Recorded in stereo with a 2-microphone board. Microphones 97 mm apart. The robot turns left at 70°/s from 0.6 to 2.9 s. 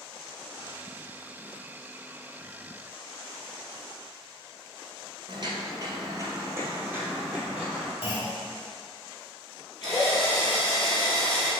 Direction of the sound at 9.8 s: 45° left (ahead or behind).